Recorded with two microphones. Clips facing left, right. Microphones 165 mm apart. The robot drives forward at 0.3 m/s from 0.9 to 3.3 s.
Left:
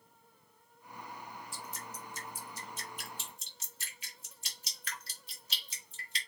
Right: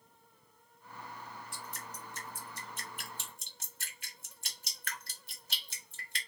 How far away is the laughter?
I don't hear laughter.